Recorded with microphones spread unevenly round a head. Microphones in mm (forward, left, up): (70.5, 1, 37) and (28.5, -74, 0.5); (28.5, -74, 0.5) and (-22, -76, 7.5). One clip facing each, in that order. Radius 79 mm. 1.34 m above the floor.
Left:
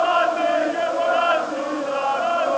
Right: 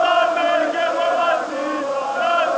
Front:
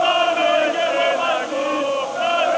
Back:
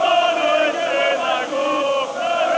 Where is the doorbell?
I don't hear a doorbell.